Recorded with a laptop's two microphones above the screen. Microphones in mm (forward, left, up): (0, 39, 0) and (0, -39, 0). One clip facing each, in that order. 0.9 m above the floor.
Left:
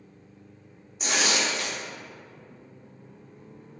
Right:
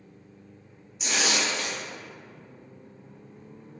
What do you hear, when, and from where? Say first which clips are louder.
1.0 s tearing paper: left 1 dB; 45° left (ahead or behind), 0.6 m